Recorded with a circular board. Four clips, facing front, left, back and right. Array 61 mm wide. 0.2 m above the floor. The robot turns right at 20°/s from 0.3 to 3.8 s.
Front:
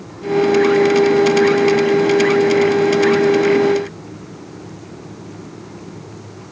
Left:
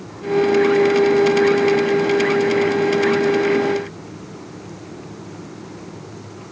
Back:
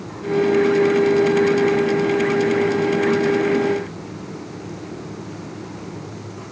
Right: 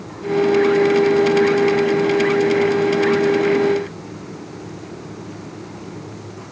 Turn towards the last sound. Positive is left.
No sound to turn to.